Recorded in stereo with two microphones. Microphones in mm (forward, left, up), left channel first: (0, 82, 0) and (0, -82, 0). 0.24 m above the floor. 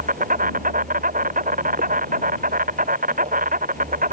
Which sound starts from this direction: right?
An insect, at 0.0 s.